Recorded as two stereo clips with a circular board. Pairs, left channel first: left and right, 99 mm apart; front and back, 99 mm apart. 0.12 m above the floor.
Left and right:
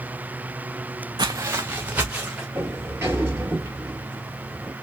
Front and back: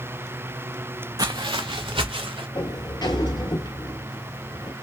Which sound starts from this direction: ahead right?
A sliding door, at 2.5 s.